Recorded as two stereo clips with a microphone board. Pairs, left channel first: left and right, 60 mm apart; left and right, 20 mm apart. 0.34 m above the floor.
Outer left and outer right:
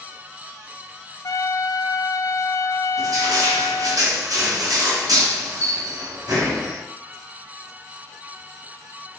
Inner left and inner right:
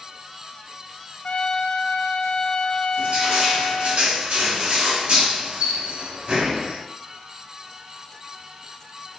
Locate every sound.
1.2 s a trumpet: 80° left, 0.6 m
3.0 s crushing: 70° right (ahead or behind), 3.5 m